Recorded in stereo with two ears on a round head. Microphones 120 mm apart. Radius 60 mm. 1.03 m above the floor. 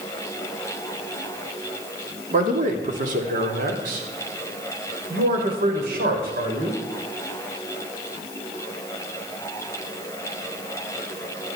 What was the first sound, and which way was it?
A man speaking, 55° right (ahead or behind).